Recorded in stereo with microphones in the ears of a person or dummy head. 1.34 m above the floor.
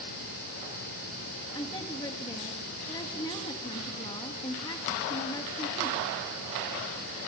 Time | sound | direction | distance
1.6 | a woman speaking | 20° left (ahead or behind) | 2 m